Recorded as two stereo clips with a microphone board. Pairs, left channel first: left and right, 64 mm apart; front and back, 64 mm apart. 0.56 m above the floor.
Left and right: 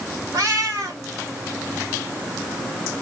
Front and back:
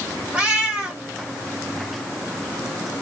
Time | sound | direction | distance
0.3 | a cat meowing | 110° right | 1.2 m